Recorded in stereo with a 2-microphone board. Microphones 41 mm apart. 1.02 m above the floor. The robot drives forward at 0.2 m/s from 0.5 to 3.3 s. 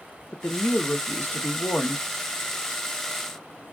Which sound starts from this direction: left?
A woman speaking, at 0.3 s.